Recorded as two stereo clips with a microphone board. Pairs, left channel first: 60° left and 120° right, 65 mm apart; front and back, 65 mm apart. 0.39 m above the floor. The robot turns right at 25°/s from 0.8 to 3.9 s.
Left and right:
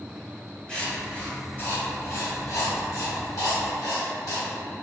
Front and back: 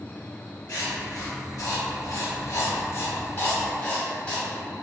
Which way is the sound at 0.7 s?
15° right.